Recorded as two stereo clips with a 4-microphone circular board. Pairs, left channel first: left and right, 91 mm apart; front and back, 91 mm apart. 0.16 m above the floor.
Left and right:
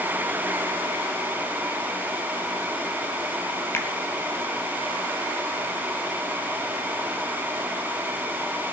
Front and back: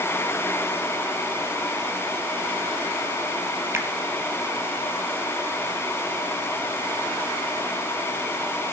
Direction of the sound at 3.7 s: 135° left.